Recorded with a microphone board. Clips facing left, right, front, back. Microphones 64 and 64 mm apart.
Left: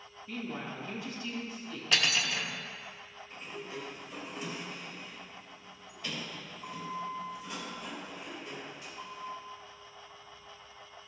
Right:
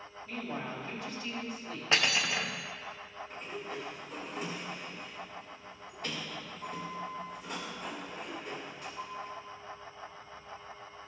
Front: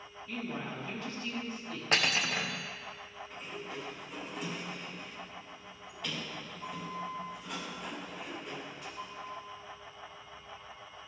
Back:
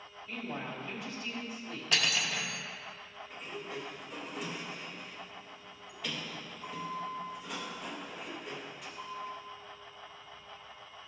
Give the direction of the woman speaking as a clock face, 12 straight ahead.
4 o'clock.